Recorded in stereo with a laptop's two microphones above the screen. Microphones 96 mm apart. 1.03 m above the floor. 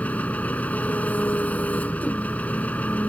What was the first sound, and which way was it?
An engine running, 15° left (ahead or behind).